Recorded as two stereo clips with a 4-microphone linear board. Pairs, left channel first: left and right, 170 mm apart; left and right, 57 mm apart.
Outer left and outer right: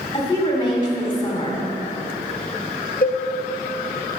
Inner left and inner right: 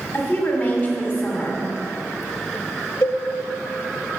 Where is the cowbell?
55° left (ahead or behind), 0.7 m.